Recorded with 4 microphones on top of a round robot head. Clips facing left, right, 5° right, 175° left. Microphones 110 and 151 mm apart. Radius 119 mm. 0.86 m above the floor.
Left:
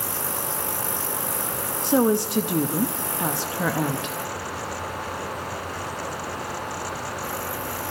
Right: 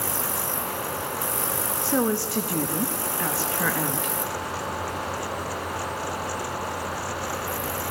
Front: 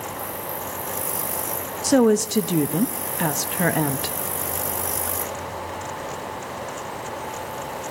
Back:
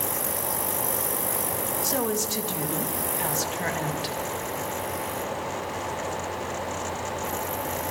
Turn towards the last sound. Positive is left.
turn(degrees=20)